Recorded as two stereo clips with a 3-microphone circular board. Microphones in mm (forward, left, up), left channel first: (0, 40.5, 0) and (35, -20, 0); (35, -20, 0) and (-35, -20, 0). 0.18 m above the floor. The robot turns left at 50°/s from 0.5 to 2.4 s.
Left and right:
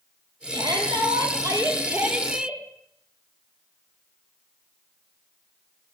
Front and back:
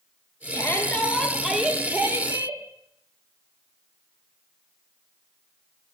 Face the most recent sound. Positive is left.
turn(degrees=-140)